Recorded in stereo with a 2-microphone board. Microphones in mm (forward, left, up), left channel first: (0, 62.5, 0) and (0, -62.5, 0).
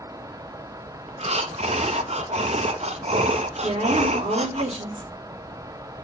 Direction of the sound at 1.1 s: 60° right (ahead or behind).